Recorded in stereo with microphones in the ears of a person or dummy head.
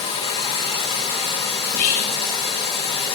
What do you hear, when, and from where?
0.0 s running water: 40° left (ahead or behind), 1.6 m
1.6 s whispering: 50° left (ahead or behind), 0.8 m